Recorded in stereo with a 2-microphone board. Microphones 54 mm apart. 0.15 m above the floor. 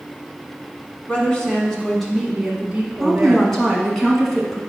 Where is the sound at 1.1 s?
25° left (ahead or behind), 1.6 m; by 3.5 s 30° right (ahead or behind), 1.7 m.